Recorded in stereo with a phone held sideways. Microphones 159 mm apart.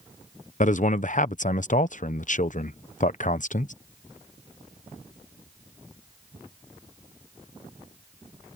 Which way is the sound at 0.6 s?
55° left (ahead or behind).